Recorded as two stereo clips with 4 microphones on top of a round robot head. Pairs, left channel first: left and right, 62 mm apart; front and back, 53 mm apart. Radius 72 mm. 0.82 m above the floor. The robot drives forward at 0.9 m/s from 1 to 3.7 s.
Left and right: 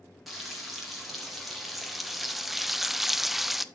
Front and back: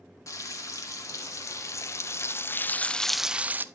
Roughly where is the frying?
Ahead.